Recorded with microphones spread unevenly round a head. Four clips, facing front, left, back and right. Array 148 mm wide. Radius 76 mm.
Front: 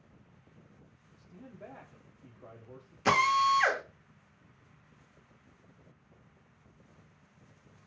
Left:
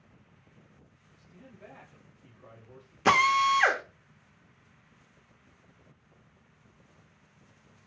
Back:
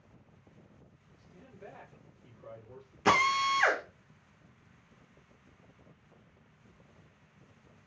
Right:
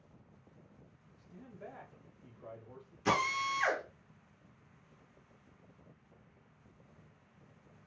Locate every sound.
1.2 s a man speaking: 25° right, 1.1 m
3.0 s a drill: 100° left, 0.9 m